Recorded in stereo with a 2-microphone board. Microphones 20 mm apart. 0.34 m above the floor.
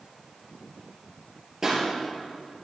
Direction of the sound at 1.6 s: 20° right (ahead or behind).